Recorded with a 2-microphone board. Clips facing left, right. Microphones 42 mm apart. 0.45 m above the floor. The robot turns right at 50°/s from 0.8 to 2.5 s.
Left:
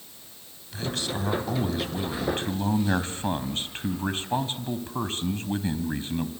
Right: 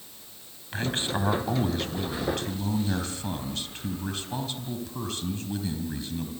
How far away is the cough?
I don't hear a cough.